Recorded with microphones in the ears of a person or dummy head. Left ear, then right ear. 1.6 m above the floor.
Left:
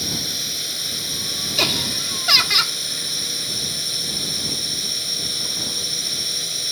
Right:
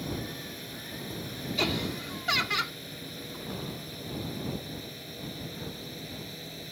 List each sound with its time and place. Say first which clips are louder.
0.0 s a drone: left 14 dB; 45° left (ahead or behind); by 6.7 s 50° left (ahead or behind)
1.6 s laughter: left 9 dB; 25° left (ahead or behind)